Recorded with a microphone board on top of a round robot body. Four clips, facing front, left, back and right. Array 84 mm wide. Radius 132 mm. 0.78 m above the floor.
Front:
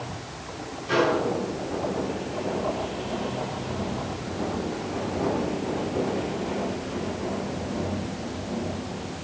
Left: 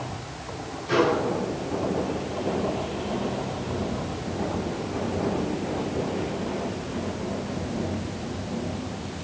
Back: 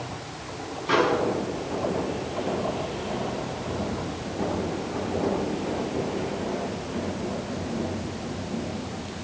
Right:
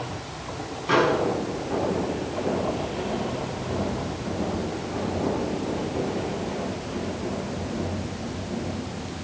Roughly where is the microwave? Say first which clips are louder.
Right 1 dB, even; behind right.